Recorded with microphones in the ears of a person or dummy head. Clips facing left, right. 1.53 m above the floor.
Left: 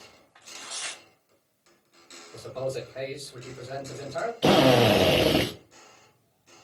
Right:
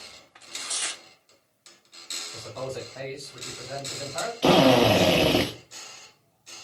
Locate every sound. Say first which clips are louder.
0.3 s tearing paper: right 2 dB; 30° right (ahead or behind), 0.5 m
2.3 s a man speaking: left 3 dB; 35° left (ahead or behind), 1.9 m
4.4 s a drill: right 1 dB; 10° left (ahead or behind), 0.8 m